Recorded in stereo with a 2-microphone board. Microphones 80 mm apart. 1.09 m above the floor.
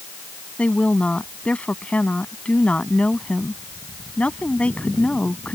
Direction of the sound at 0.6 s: 15° left (ahead or behind).